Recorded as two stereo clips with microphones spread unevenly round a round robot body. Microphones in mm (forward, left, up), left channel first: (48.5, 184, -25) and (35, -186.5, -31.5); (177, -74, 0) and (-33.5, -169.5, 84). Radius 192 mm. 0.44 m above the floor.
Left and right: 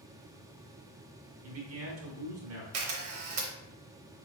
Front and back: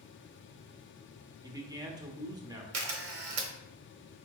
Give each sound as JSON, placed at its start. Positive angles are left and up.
{"t": 1.4, "sound": "a man speaking", "azimuth_deg": -65, "distance_m": 1.1}
{"t": 2.7, "sound": "a camera shutter", "azimuth_deg": -145, "distance_m": 0.8}